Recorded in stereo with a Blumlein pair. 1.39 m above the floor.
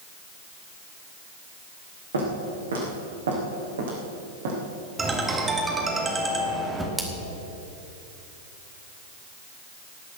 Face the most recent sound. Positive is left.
turn(degrees=-5)